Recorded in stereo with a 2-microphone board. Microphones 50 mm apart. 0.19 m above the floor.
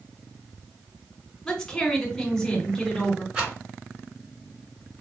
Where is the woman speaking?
10° left (ahead or behind), 1.7 m.